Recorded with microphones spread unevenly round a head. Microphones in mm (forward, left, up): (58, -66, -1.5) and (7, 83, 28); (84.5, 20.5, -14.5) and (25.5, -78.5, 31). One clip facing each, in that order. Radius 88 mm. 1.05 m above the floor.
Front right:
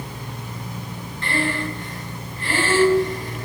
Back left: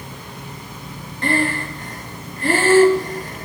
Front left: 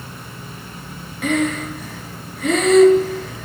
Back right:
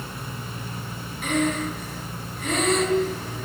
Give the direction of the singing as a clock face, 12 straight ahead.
No singing in this recording.